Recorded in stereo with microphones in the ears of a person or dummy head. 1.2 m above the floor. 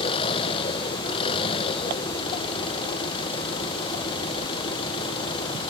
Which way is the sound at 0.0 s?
30° left (ahead or behind).